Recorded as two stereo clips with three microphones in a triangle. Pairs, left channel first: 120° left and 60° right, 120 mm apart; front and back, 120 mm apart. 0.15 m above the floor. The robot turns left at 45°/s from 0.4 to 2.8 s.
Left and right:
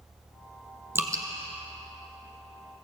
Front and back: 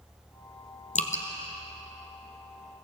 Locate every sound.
0.9 s dripping: 10° left, 1.1 m; by 1.2 s straight ahead, 1.1 m